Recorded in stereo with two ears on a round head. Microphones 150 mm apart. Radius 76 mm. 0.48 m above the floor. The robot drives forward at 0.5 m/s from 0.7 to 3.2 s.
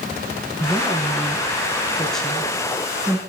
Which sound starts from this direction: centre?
A woman speaking, at 0.6 s.